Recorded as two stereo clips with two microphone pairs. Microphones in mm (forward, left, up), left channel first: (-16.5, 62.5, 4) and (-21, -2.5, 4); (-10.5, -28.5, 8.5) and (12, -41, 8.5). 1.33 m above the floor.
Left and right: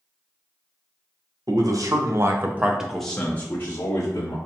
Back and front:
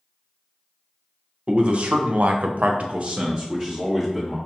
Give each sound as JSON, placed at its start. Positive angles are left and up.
{"t": 1.5, "sound": "a man speaking", "azimuth_deg": -70, "distance_m": 0.8}